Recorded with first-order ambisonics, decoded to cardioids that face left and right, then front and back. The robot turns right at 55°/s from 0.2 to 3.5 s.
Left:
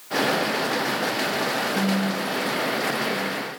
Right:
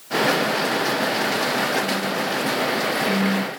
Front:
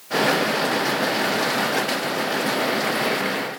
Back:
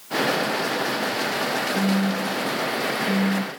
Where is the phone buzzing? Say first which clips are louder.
Right 2 dB, front 2 dB; 140° left; by 3.5 s 125° right.